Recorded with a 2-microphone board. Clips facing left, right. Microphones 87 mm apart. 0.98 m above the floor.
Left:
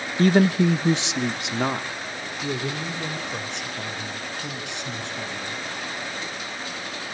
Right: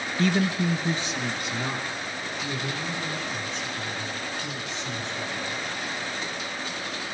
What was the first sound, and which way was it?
A man speaking, 35° left (ahead or behind).